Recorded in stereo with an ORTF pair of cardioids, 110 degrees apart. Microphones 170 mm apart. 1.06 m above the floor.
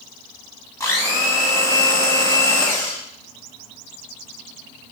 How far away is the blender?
About 0.8 m.